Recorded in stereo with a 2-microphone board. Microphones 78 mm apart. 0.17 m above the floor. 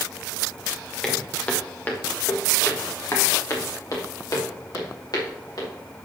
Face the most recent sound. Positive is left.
turn(degrees=60)  # may be behind; listen again after turning